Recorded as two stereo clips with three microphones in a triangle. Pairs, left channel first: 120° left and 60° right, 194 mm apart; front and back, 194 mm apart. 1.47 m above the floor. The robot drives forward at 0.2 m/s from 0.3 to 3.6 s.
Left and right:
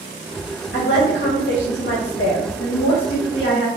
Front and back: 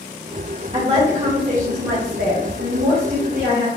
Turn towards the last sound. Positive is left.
turn(degrees=145)